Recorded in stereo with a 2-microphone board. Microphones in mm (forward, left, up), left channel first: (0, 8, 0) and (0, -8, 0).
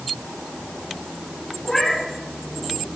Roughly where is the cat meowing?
Centre.